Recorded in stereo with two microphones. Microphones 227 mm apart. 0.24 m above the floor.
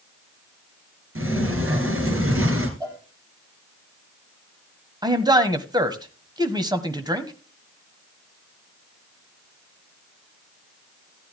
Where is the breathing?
No breathing in this recording.